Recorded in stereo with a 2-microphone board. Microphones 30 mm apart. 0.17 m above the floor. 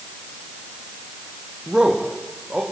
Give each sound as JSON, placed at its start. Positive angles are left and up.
{"t": 1.7, "sound": "a man speaking", "side_deg": -25, "distance_m": 6.5}